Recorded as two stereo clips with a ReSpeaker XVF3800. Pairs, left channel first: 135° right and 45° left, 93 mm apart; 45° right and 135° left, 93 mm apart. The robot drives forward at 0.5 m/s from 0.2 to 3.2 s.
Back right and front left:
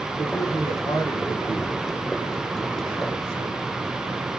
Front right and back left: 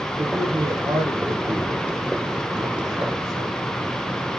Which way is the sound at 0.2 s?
175° right.